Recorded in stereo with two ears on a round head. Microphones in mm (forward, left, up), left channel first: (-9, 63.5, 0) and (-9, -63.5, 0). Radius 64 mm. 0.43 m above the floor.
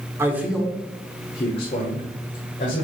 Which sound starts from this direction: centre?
A man speaking, at 0.2 s.